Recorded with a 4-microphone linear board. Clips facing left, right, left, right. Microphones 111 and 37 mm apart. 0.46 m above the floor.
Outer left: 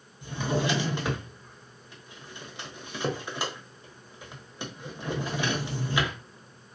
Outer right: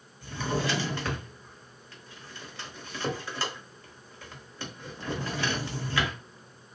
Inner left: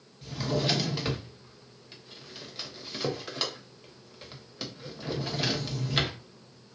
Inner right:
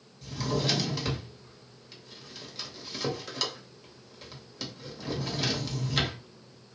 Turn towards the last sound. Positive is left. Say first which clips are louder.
# outer left 2 dB, inner left 1 dB
turn(degrees=15)  # may be behind; listen again after turning